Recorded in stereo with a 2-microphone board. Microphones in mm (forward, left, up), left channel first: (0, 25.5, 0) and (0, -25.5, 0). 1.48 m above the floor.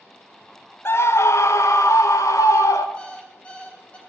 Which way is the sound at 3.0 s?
20° left (ahead or behind).